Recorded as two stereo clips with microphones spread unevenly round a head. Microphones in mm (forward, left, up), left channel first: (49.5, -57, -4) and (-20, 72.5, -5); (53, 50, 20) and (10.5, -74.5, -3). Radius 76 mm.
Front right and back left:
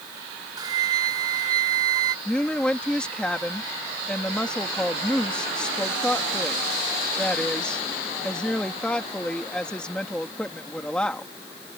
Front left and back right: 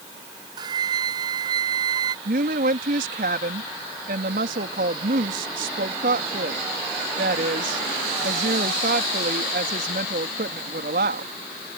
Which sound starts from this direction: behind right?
A woman speaking, at 2.2 s.